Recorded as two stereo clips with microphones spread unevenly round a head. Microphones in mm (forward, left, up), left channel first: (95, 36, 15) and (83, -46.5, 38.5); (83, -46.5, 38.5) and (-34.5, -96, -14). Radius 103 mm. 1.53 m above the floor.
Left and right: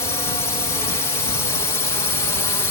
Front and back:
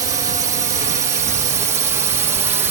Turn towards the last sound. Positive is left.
turn(degrees=140)